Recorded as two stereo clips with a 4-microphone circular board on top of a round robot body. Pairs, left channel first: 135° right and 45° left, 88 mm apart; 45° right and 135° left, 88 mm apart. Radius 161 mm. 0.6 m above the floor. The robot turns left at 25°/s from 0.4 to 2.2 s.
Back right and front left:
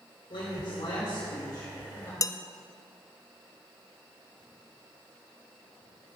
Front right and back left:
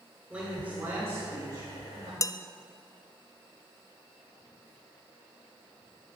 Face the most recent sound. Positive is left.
turn(degrees=-90)